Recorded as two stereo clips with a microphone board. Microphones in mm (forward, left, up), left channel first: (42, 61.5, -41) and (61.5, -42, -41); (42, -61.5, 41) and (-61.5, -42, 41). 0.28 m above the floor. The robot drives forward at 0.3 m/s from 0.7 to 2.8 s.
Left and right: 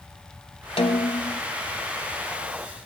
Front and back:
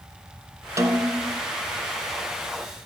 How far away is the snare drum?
About 0.8 m.